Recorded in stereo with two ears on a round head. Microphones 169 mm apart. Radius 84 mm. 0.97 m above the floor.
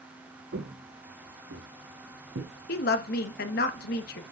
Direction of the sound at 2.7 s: 55° left (ahead or behind).